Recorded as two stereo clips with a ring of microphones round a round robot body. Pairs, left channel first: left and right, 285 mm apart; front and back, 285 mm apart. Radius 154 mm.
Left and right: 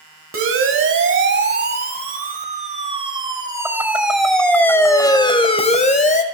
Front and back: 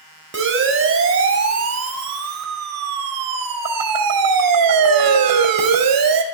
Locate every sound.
0.3 s a siren: 130° right, 3.5 m; by 6.2 s 150° left, 3 m